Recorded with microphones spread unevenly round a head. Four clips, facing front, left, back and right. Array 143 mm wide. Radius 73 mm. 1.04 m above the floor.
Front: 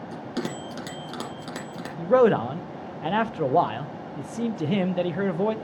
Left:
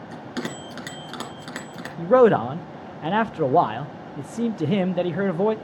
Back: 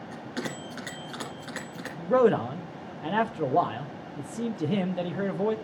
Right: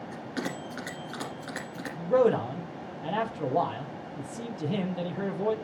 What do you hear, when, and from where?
0.1 s a bell: 25° left, 2 m
2.0 s a man speaking: 70° left, 0.8 m